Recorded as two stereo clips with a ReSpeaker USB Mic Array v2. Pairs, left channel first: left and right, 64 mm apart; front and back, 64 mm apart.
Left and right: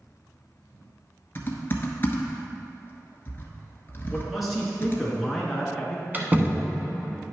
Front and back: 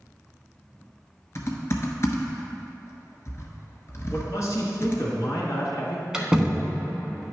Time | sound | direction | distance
1.4 | typing on a keyboard | 40° left | 1.1 m
4.1 | a man speaking | straight ahead | 2.0 m
6.1 | a door slam | 110° right | 1.0 m